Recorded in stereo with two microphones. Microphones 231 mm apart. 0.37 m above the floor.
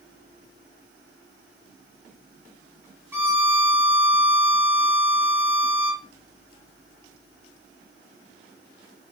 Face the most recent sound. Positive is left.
turn(degrees=-10)  # may be behind; listen again after turning